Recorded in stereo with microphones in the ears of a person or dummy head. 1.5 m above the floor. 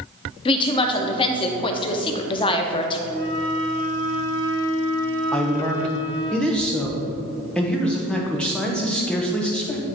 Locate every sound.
0.5 s a woman speaking: 30° left (ahead or behind), 0.7 m
3.1 s a flute: 20° left (ahead or behind), 1.0 m
5.3 s a man speaking: 5° left (ahead or behind), 0.9 m